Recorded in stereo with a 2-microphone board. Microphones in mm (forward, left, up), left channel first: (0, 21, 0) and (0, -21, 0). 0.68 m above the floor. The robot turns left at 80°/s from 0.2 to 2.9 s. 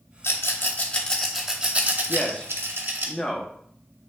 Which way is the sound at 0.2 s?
70° left (ahead or behind).